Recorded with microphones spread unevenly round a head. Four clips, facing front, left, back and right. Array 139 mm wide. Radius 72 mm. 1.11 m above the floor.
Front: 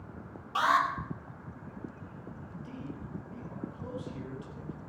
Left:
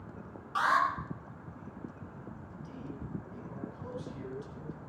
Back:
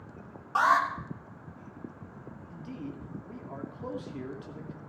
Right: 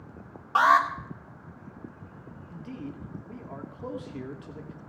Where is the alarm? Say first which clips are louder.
Right 7 dB, back 2 dB; 105° right, 2.5 m.